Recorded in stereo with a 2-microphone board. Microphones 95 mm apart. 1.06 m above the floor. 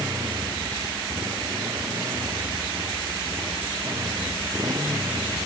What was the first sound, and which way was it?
A motorcycle, 35° right (ahead or behind).